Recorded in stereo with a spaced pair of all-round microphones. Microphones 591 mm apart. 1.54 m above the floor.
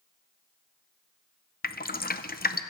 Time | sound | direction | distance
1.6 | dripping | 15° left (ahead or behind) | 0.5 m